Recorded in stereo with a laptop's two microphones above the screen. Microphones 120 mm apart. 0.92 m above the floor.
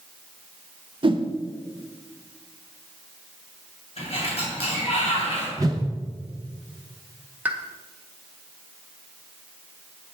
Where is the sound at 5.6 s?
30° right (ahead or behind), 0.8 m.